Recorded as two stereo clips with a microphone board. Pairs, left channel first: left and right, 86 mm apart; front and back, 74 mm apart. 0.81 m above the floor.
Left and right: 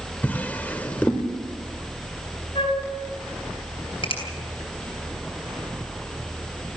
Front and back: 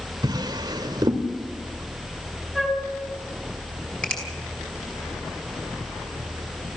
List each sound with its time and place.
0.2 s a drawer: 160° left, 1.9 m
2.5 s a flute: 90° left, 4 m
4.0 s a finger snap: 75° left, 5.5 m